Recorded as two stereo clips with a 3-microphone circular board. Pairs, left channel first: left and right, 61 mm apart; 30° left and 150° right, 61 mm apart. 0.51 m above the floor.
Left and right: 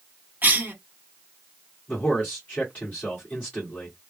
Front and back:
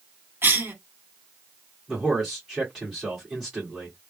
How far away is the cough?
About 1.6 m.